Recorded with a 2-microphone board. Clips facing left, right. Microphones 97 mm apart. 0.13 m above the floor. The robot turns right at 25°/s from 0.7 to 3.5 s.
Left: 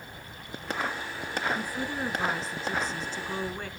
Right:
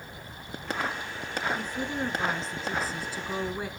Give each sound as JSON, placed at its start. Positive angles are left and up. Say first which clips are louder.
{"t": 1.6, "sound": "a woman speaking", "louder": "right 1 dB", "side_deg": 10, "distance_m": 1.6}